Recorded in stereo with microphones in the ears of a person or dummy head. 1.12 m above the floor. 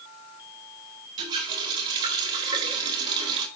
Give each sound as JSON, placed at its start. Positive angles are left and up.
{"t": 1.2, "sound": "a running tap", "side_deg": -25, "distance_m": 3.0}